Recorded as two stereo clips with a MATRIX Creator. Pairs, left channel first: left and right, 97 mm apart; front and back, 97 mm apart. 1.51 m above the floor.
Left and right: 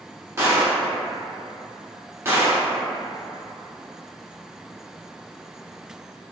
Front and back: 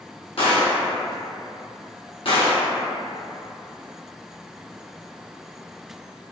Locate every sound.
0.4 s a gunshot: 25° right, 0.7 m